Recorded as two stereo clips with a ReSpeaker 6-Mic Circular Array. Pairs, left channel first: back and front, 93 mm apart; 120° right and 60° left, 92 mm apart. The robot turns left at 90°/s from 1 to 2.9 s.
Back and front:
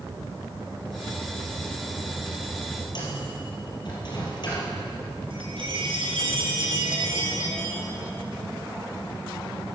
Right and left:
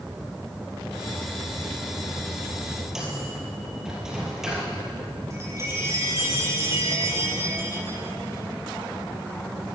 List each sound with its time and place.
3.0 s a microwave: 145° left, 4 m
5.3 s a chime: 5° left, 3.5 m